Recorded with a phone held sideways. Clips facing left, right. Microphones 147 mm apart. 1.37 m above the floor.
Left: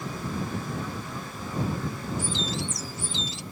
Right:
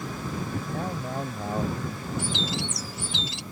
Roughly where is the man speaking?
Right.